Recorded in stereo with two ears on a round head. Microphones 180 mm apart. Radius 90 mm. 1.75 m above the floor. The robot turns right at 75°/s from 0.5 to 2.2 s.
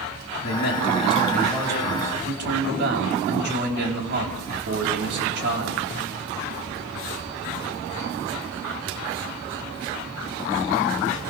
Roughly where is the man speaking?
Left.